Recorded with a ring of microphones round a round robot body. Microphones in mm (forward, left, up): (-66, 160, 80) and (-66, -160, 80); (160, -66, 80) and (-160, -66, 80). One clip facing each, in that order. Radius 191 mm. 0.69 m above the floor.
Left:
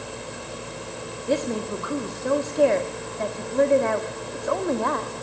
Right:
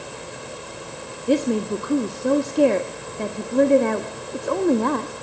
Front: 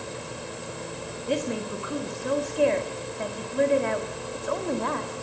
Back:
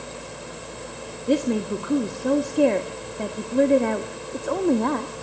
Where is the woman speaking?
140° right, 1.4 m.